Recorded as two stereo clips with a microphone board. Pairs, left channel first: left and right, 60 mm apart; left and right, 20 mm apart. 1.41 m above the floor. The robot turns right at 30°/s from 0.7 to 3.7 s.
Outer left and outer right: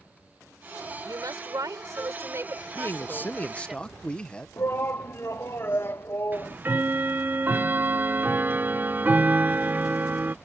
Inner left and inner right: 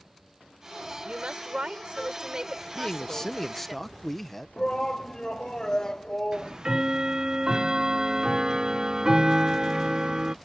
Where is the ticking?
35° right (ahead or behind).